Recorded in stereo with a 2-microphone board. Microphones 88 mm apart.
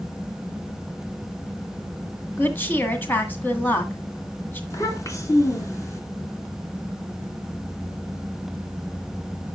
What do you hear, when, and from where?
2.4 s a woman speaking: 25° left (ahead or behind), 1.9 m
4.7 s a child speaking: 35° left (ahead or behind), 1.9 m